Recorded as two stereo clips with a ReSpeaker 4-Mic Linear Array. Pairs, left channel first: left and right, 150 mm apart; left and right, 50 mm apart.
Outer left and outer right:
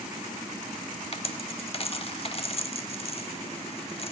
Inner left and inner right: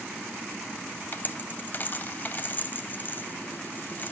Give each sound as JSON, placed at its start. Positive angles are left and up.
{"t": 1.1, "sound": "a dropped coin", "side_deg": 40, "distance_m": 0.8}